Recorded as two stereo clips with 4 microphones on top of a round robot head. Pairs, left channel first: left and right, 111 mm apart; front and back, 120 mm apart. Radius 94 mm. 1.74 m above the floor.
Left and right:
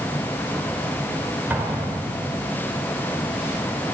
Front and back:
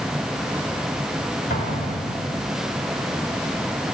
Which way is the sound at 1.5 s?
15° right.